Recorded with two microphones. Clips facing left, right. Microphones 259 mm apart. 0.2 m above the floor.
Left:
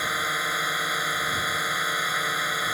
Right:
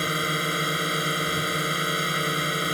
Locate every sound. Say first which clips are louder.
0.0 s a drone: right 6 dB; 35° right (ahead or behind)